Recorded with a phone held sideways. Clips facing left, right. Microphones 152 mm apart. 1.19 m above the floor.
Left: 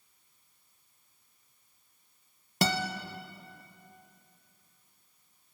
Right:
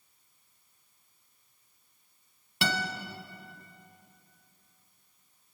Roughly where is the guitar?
Left.